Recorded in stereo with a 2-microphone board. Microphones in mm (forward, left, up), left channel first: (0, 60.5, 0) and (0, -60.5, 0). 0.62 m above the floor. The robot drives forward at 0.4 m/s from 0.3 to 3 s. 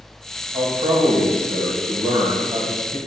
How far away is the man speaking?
About 2.5 m.